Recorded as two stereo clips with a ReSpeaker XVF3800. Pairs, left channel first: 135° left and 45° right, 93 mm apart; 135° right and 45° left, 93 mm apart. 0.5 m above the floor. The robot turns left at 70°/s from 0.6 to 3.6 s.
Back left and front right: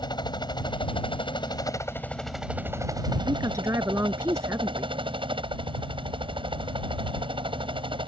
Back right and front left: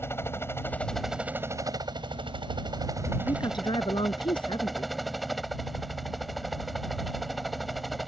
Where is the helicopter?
165° left; by 8.1 s 45° right.